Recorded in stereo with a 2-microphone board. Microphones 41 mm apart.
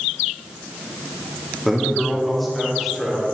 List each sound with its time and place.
1.6 s a man speaking: 5° left (ahead or behind), 2.5 m; by 3.2 s 5° right (ahead or behind), 4 m